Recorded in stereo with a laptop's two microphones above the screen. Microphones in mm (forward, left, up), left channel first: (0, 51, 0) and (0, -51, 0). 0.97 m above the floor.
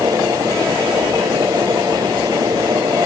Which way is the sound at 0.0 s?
45° right (ahead or behind).